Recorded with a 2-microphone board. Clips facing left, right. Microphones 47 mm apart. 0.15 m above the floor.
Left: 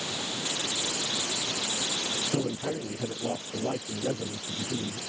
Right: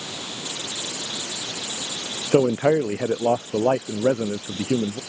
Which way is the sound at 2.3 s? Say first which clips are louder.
Right 15 dB; 80° right.